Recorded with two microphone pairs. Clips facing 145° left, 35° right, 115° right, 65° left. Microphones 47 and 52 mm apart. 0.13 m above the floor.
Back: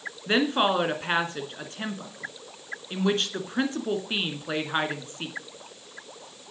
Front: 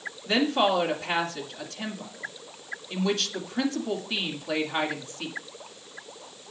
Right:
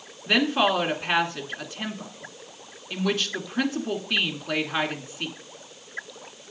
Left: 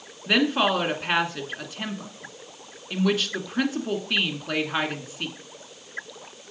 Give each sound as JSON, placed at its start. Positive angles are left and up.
{"t": 0.3, "sound": "a woman speaking", "azimuth_deg": 155, "distance_m": 1.5}